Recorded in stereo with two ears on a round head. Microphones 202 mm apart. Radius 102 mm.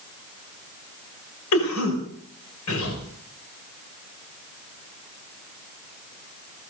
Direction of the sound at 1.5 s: 85° left.